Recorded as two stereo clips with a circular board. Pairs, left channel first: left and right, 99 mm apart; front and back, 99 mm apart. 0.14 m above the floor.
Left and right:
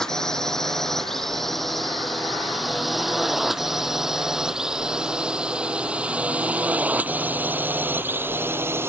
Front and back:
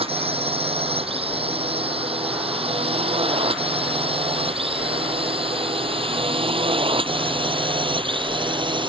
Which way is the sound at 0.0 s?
175° left.